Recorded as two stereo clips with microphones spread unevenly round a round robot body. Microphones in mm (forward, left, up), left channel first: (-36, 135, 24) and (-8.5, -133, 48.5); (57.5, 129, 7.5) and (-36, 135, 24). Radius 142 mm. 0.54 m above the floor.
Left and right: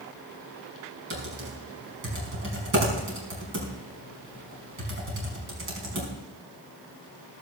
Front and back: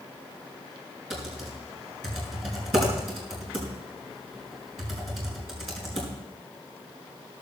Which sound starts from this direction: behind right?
Typing on a keyboard, at 1.1 s.